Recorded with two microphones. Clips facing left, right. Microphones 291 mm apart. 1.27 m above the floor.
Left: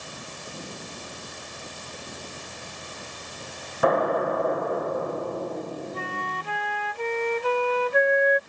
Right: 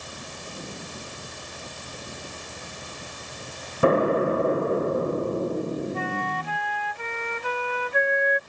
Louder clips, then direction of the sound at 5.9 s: Right 5 dB; 50° left (ahead or behind).